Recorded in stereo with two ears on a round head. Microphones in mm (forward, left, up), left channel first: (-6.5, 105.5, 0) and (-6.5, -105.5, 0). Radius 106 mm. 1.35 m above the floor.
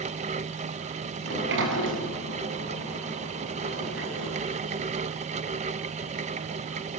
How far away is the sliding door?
About 6 m.